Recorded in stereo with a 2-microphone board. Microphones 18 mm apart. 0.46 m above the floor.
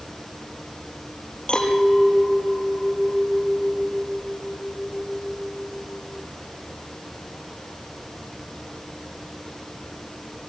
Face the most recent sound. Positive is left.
turn(degrees=55)  # may be behind; listen again after turning